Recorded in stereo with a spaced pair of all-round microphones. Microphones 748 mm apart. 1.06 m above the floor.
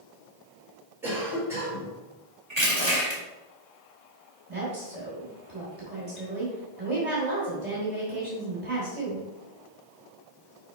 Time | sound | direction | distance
1.0 | a cough | 5° right (ahead or behind) | 2.5 m
2.5 | crushing | 35° right (ahead or behind) | 2 m
4.5 | a woman speaking | 50° right (ahead or behind) | 3 m